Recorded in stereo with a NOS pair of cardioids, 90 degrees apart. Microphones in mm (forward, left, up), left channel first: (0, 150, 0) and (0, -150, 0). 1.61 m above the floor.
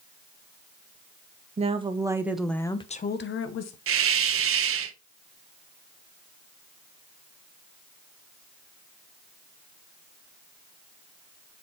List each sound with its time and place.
1.6 s a woman speaking: 20° right, 1.8 m; by 3.8 s 65° left, 1.2 m
3.9 s a hiss: 45° right, 0.9 m